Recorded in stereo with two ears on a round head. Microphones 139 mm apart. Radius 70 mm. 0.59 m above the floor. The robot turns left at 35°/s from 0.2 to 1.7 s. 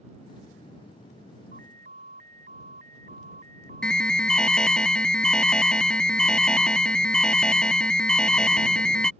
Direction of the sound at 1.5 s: 55° right (ahead or behind).